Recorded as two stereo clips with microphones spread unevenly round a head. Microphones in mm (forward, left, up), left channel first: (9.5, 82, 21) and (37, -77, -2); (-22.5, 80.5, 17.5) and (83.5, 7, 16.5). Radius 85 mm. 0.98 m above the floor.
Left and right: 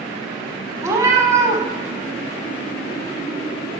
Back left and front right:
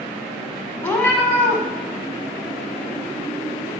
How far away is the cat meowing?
About 0.9 m.